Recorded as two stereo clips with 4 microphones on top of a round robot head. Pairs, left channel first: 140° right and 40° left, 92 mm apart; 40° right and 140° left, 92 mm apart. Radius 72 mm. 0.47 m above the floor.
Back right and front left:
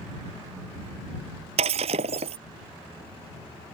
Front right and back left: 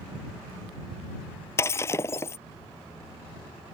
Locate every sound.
1.6 s breaking glass: 25° left